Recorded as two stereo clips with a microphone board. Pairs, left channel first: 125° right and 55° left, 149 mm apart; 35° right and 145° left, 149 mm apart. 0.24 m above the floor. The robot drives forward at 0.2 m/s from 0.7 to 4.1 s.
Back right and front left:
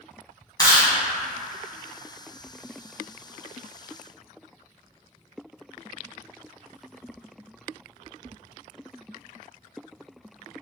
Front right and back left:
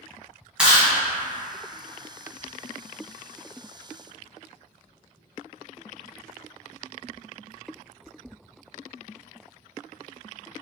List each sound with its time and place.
0.6 s chewing: 140° right, 1.4 m